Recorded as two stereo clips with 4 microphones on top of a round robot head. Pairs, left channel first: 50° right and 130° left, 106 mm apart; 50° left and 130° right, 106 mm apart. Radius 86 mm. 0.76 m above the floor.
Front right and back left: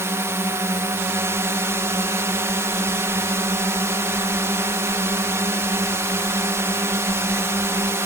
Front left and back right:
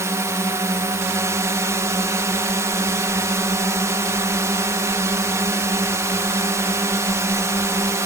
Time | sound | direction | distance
0.0 | a drone | straight behind | ?